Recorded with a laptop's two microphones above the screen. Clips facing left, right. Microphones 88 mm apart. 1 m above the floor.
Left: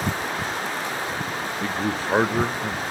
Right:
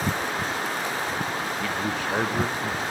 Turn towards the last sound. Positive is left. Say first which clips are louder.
# left 2 dB
turn(degrees=35)  # may be behind; listen again after turning